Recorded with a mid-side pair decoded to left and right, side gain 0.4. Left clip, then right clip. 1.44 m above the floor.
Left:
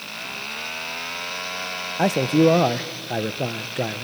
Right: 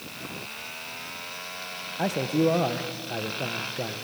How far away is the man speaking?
About 0.9 m.